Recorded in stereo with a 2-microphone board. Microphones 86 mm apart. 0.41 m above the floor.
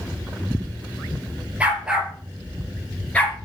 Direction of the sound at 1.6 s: 15° right (ahead or behind).